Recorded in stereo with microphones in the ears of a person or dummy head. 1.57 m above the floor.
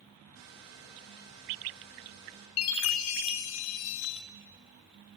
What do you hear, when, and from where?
0.3 s a hair dryer: 75° right (ahead or behind), 7 m
2.6 s a chime: 75° left (ahead or behind), 1.0 m